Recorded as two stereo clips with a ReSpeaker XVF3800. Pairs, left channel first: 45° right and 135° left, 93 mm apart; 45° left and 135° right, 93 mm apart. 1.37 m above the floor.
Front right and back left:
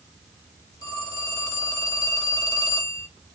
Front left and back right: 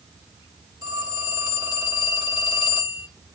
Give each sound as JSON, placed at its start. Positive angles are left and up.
{"t": 0.8, "sound": "a phone ringing", "azimuth_deg": -100, "distance_m": 2.5}